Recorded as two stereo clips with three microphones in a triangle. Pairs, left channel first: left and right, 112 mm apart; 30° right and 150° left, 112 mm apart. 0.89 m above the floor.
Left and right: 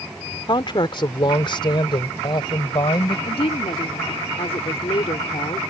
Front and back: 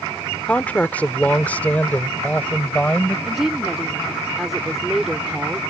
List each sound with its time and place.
0.5 s a woman speaking: 45° left
3.3 s a woman speaking: 65° left